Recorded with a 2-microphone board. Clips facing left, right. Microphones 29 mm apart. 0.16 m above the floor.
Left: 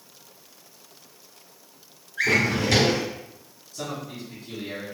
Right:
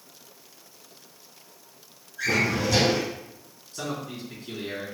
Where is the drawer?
65° left (ahead or behind), 1.2 m.